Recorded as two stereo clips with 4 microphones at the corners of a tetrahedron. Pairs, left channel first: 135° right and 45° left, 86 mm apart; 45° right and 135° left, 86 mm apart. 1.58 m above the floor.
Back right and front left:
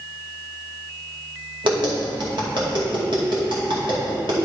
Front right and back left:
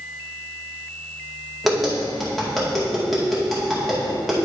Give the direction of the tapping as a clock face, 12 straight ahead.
11 o'clock.